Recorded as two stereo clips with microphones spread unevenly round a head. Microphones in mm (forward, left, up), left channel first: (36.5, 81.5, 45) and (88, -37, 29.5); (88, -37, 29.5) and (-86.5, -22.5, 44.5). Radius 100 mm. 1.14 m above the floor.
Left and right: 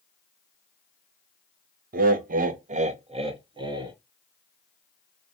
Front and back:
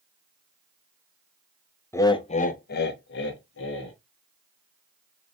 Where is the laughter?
80° right, 0.5 m; by 4.0 s 10° right, 1.1 m.